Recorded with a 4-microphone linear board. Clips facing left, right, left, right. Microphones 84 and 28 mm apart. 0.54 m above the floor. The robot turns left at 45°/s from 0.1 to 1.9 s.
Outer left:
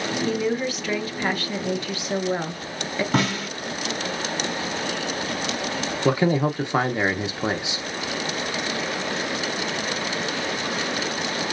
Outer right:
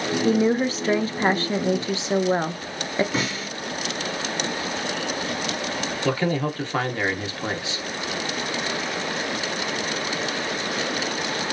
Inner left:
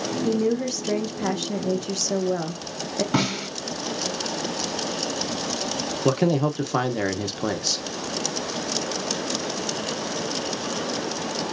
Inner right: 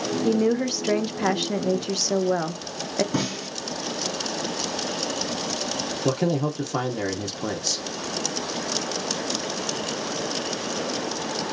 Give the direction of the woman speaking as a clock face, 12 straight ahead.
2 o'clock.